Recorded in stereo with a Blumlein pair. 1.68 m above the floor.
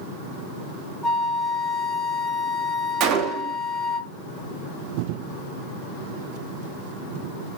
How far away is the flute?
About 0.7 m.